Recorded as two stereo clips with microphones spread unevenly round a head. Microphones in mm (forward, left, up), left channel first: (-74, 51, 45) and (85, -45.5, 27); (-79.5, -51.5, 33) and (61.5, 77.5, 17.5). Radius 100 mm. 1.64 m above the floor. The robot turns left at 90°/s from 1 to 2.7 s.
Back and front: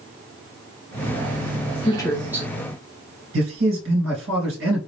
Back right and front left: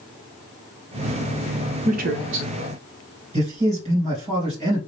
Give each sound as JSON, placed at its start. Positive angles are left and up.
{"t": 1.9, "sound": "a woman speaking", "azimuth_deg": 95, "distance_m": 0.9}
{"t": 3.3, "sound": "a man speaking", "azimuth_deg": -15, "distance_m": 3.0}